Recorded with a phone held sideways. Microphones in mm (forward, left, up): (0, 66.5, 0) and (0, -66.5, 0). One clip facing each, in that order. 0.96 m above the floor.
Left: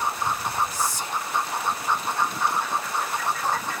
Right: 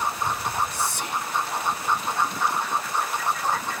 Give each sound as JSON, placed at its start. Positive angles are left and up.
{"t": 0.7, "sound": "whispering", "side_deg": -65, "distance_m": 1.2}